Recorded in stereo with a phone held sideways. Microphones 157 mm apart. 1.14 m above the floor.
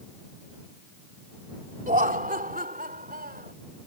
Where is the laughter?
60° right (ahead or behind); by 3.5 s 70° right (ahead or behind).